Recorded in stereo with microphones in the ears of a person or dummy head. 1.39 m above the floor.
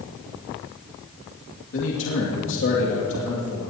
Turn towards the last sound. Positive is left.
turn(degrees=70)  # may be behind; listen again after turning